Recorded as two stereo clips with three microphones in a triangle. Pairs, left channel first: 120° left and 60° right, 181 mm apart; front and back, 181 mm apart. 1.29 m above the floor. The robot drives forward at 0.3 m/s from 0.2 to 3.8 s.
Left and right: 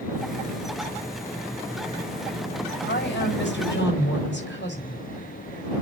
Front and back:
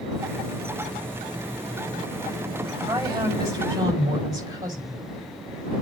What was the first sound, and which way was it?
A woman speaking, 110° left.